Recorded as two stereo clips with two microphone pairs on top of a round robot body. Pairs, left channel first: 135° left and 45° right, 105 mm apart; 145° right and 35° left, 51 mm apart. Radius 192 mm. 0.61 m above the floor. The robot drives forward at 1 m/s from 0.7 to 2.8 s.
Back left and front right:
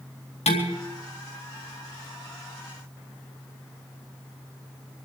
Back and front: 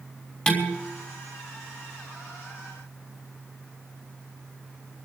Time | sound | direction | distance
0.5 | dishes clattering | 145° left | 4 m